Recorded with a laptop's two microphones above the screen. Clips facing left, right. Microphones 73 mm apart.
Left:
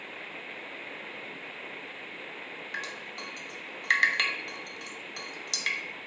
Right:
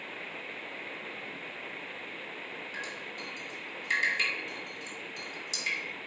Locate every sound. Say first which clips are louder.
2.7 s dripping: left 4 dB; 75° left (ahead or behind), 0.9 m